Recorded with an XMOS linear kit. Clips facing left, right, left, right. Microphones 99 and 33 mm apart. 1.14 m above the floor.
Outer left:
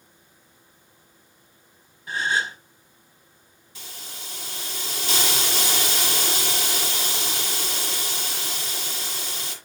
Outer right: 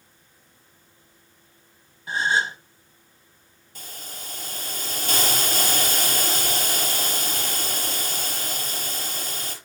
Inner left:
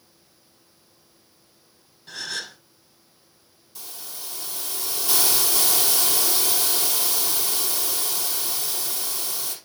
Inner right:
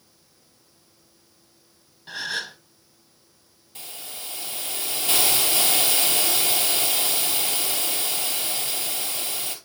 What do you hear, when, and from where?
2.1 s a gasp: 25° right (ahead or behind), 1.3 m
3.8 s a hiss: 50° right (ahead or behind), 4 m